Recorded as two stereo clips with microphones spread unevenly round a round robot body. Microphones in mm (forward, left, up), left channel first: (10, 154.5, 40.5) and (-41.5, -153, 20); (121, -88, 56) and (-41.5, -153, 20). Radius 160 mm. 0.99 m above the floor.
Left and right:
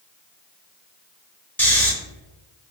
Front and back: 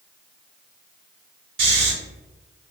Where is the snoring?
160° left, 0.6 m.